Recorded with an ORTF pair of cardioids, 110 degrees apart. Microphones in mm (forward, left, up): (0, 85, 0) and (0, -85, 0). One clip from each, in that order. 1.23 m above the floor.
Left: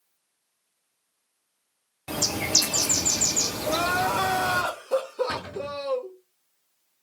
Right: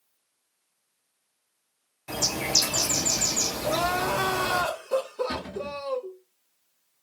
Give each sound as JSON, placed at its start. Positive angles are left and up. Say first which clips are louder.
{"t": 2.1, "sound": "a bird", "louder": "left 1 dB", "azimuth_deg": 30, "distance_m": 1.0}
{"t": 3.6, "sound": "crying", "louder": "left 2 dB", "azimuth_deg": 15, "distance_m": 1.2}
{"t": 5.3, "sound": "a cupboard door", "louder": "left 1 dB", "azimuth_deg": 30, "distance_m": 2.5}